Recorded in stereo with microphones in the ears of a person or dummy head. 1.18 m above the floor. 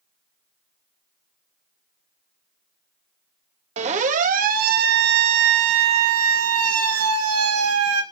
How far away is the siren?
About 2.5 m.